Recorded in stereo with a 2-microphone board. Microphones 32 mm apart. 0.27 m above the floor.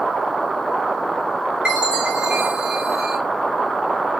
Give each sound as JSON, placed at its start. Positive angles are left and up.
{"t": 1.6, "sound": "a chime", "side_deg": -30, "distance_m": 1.5}